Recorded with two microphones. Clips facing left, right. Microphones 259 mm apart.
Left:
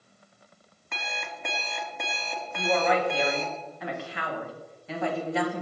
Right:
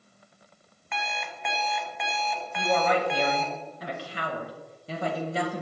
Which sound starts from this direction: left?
An alarm clock, at 0.9 s.